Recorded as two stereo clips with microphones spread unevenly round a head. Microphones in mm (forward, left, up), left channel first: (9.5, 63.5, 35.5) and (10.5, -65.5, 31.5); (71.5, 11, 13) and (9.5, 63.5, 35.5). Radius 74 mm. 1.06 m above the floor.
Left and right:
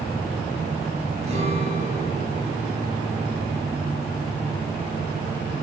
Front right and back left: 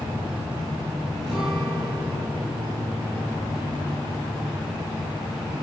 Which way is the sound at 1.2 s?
135° right.